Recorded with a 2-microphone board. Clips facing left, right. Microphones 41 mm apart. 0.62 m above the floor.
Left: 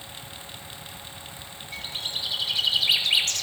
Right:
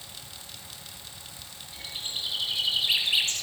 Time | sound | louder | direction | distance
1.7 | a bird | left 3 dB | 85° left | 1.7 m